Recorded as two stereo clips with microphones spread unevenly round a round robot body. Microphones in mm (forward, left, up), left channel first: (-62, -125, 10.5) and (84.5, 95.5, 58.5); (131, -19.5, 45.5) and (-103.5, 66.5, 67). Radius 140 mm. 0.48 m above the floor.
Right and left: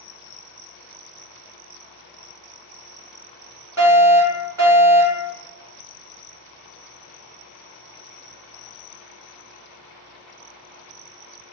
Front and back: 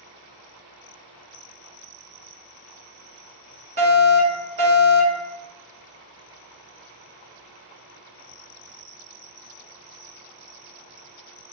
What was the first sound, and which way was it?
A fire alarm, 140° left.